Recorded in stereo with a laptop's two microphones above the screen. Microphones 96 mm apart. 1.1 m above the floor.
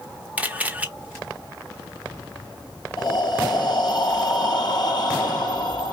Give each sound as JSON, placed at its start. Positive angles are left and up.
{"t": 0.4, "sound": "a camera shutter", "side_deg": -15, "distance_m": 1.1}
{"t": 3.0, "sound": "breathing", "side_deg": 50, "distance_m": 2.5}